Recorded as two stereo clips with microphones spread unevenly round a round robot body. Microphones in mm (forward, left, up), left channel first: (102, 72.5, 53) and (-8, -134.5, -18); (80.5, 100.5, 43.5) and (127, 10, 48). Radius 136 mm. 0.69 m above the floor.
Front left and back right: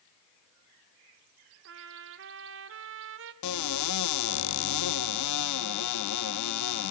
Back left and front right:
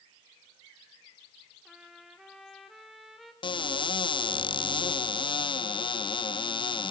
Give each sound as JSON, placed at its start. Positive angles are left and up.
{"t": 1.6, "sound": "a trumpet", "azimuth_deg": -155, "distance_m": 1.5}
{"t": 3.4, "sound": "a cupboard door", "azimuth_deg": 85, "distance_m": 0.8}